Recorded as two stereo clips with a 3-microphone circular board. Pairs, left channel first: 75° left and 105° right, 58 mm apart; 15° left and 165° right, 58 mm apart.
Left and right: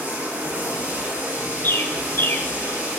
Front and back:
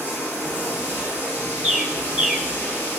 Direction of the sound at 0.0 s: 40° right.